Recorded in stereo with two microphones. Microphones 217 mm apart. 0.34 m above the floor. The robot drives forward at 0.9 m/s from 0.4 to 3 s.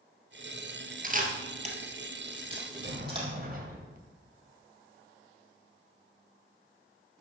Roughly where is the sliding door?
Right.